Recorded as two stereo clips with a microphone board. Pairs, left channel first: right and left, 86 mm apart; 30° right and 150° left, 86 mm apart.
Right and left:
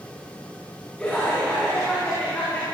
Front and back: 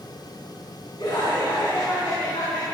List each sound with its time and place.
1.0 s laughter: 10° right, 4 m; by 2.6 s 25° right, 5 m